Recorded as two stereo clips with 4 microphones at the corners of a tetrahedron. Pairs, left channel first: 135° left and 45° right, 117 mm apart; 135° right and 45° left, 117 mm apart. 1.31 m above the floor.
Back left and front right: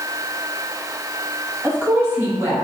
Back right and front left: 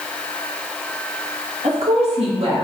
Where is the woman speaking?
35° left, 1.8 m; by 2.6 s 15° left, 1.5 m.